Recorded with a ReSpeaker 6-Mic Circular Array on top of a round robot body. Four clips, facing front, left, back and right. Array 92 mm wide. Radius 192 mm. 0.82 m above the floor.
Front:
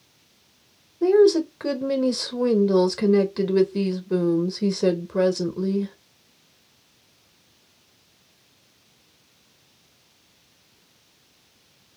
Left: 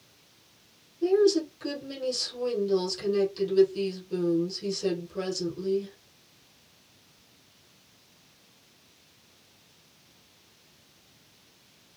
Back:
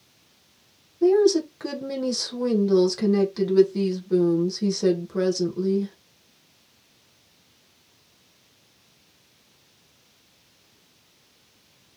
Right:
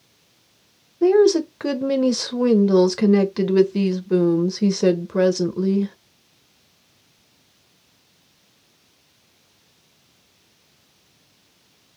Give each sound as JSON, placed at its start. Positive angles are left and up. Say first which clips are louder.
{"t": 1.0, "sound": "a woman speaking", "louder": "right 7 dB, front 2 dB", "azimuth_deg": -75, "distance_m": 1.3}